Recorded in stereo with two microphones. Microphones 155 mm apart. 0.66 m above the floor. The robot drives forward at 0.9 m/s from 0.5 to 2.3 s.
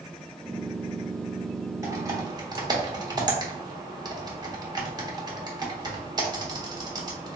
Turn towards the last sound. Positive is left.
turn(degrees=-25)  # may be behind; listen again after turning